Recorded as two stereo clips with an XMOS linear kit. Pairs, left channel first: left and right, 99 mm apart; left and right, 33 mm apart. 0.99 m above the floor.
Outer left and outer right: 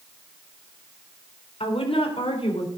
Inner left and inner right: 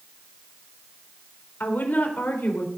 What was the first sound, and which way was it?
A woman speaking, 75° left (ahead or behind).